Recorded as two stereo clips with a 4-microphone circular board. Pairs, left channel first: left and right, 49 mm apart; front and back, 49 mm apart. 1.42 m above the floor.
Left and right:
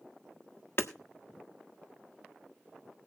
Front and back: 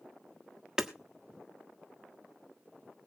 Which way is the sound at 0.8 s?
105° left.